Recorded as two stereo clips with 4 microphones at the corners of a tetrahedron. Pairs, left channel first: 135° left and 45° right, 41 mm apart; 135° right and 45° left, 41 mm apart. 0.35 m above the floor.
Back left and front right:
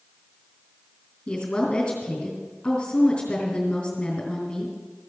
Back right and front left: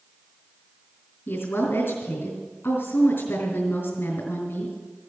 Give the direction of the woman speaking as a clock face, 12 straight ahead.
5 o'clock.